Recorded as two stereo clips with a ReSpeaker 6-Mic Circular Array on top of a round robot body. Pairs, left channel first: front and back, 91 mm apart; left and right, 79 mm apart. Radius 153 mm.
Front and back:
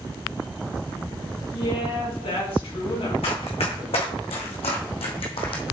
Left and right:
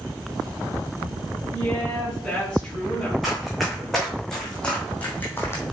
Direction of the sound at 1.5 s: 5° left.